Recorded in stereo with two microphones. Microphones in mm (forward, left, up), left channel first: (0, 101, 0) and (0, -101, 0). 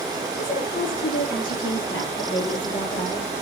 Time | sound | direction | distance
0.4 | a woman speaking | 75° left (ahead or behind) | 5.5 m